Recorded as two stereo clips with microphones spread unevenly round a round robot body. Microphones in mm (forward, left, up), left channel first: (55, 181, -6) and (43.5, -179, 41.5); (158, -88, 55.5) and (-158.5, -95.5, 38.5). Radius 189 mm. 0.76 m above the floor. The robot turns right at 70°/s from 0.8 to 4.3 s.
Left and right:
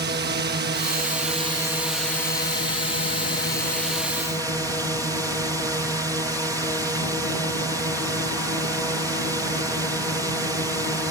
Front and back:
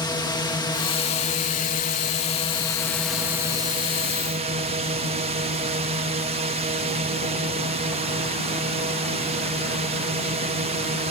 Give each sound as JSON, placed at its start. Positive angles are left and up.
{"t": 0.0, "sound": "a drone", "azimuth_deg": -60}